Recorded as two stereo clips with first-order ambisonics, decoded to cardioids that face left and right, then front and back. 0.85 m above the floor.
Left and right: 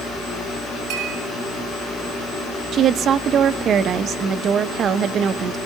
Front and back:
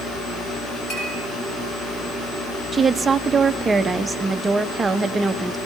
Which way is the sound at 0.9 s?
50° right.